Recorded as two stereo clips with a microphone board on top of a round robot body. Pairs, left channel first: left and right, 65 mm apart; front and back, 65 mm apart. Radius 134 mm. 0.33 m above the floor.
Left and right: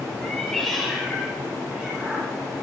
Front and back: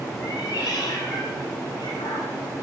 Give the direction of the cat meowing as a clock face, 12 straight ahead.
12 o'clock.